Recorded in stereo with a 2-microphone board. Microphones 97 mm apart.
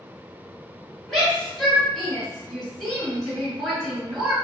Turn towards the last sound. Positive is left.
turn(degrees=5)  # may be behind; listen again after turning